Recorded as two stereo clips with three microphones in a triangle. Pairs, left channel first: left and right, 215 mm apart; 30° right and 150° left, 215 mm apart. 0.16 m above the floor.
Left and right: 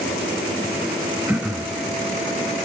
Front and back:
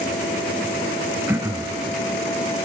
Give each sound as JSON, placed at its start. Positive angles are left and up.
{"t": 1.3, "sound": "throat clearing", "azimuth_deg": -155, "distance_m": 1.1}